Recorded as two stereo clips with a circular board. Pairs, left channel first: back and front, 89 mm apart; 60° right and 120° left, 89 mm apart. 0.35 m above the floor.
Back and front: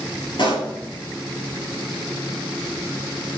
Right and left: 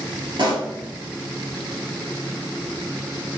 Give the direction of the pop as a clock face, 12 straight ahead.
7 o'clock.